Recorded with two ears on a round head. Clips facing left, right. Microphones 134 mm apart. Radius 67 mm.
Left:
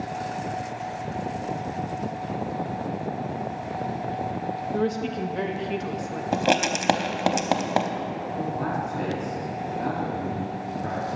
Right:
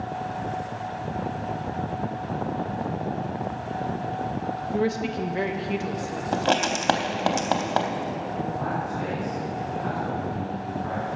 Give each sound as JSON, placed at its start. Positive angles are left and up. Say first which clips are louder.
{"t": 4.7, "sound": "a woman speaking", "louder": "right 1 dB", "side_deg": -5, "distance_m": 0.7}
{"t": 6.3, "sound": "writing", "louder": "left 1 dB", "side_deg": 15, "distance_m": 0.7}
{"t": 8.4, "sound": "a man speaking", "louder": "left 2 dB", "side_deg": 65, "distance_m": 2.0}